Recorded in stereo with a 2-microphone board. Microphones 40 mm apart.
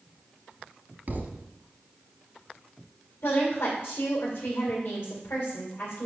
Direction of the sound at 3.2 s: 65° left (ahead or behind).